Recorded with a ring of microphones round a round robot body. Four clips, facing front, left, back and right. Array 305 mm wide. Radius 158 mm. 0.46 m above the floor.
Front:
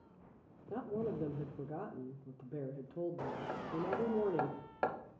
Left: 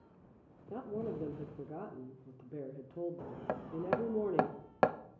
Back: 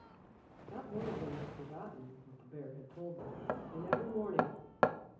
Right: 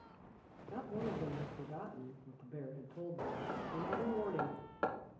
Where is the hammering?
120° left, 0.5 m.